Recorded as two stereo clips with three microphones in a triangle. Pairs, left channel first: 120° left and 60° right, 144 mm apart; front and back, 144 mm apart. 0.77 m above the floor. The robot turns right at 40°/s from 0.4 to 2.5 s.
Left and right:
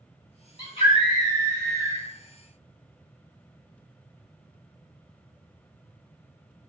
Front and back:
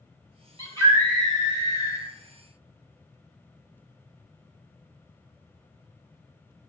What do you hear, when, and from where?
0.6 s a scream: 60° left, 1.5 m; by 2.1 s 120° left, 1.5 m